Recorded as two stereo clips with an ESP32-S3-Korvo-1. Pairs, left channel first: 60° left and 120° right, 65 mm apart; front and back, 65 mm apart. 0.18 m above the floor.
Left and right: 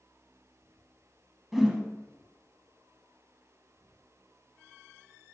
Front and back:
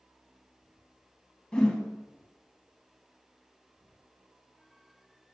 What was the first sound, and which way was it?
A whoosh, 35° right.